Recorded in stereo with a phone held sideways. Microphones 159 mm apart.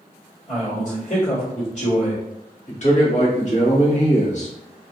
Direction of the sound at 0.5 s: 60° left (ahead or behind).